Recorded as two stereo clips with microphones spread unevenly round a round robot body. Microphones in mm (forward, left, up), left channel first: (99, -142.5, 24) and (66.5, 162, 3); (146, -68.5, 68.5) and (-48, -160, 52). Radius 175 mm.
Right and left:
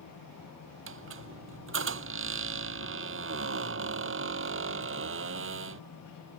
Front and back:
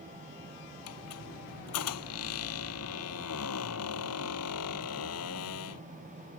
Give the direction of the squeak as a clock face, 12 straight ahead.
10 o'clock.